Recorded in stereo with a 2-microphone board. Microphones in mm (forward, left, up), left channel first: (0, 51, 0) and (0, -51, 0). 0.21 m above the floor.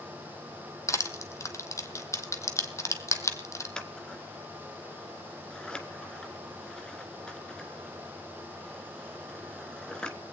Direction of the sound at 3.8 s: 10° left (ahead or behind).